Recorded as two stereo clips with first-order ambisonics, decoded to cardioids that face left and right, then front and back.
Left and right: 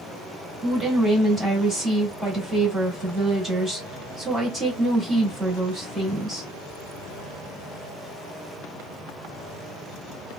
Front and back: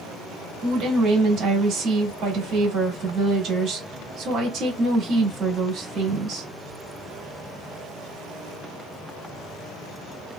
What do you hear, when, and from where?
0.6 s a woman speaking: 165° right, 1.5 m